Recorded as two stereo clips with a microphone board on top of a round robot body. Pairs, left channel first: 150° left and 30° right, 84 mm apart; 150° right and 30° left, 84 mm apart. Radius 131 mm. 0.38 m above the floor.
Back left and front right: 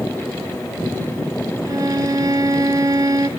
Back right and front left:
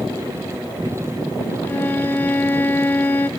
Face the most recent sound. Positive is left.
turn(degrees=-80)